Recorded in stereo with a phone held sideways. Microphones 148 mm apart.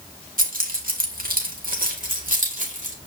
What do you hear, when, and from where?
0.4 s keys jangling: 70° right (ahead or behind), 1.9 m; by 3.0 s 60° right (ahead or behind), 2.5 m